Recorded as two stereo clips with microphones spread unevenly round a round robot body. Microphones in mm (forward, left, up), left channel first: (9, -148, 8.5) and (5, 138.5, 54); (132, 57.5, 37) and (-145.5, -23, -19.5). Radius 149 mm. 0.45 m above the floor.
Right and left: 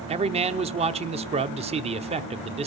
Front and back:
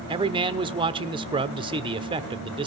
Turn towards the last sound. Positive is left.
turn(degrees=155)